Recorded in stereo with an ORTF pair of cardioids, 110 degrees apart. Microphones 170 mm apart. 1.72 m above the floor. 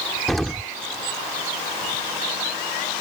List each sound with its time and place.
0.3 s an explosion: straight ahead